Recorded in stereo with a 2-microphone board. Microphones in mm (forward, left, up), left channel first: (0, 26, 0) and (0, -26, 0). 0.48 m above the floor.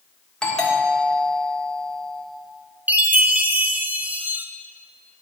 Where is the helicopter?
No helicopter in this recording.